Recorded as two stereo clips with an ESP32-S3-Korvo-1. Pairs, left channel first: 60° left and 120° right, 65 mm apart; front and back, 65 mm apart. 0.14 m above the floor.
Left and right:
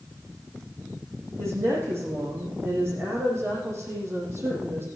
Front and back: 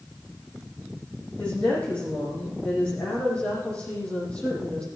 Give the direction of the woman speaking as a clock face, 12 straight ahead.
2 o'clock.